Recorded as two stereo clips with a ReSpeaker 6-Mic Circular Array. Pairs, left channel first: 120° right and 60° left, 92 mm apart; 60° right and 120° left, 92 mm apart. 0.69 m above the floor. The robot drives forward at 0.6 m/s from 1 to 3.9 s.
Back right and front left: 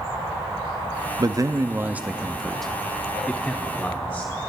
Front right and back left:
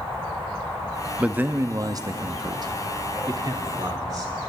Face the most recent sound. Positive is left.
turn(degrees=170)